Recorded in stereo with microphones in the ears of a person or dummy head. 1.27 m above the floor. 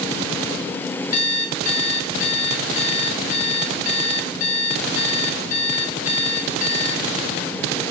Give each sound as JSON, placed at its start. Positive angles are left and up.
{"t": 1.1, "sound": "an alarm clock", "side_deg": 45, "distance_m": 8.0}